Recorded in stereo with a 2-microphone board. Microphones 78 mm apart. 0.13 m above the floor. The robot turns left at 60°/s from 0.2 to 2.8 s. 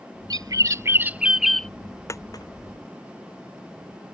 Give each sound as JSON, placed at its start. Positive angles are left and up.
{"t": 0.3, "sound": "a bird", "azimuth_deg": -105}
{"t": 2.1, "sound": "a dropped coin", "side_deg": 35}